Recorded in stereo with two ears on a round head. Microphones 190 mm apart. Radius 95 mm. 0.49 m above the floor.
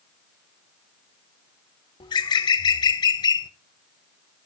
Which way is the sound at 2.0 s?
20° left (ahead or behind).